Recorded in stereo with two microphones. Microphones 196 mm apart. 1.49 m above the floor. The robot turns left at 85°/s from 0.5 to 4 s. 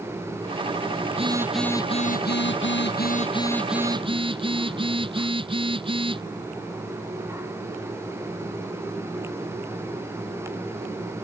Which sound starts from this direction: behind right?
A phone buzzing, at 1.1 s.